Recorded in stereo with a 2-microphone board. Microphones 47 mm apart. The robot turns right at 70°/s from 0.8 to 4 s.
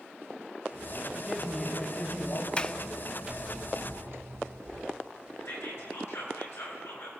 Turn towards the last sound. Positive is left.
turn(degrees=65)  # may be behind; listen again after turning